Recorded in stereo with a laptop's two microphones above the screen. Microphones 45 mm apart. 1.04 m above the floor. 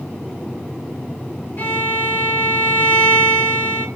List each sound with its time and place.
1.6 s a violin: 45° left (ahead or behind), 1.4 m